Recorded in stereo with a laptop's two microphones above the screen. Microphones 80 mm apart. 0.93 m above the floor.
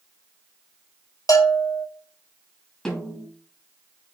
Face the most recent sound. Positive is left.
turn(degrees=10)  # may be behind; listen again after turning